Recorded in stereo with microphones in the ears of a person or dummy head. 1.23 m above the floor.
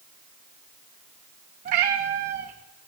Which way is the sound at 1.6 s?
35° right (ahead or behind).